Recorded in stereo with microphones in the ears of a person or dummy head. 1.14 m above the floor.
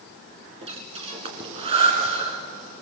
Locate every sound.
0.6 s breathing: 35° right (ahead or behind), 2.0 m